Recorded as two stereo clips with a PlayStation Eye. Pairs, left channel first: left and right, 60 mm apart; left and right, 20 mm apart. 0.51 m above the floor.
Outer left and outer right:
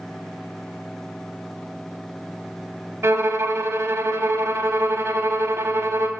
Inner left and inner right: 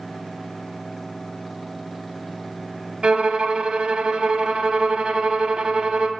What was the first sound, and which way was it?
A violin, 50° right (ahead or behind).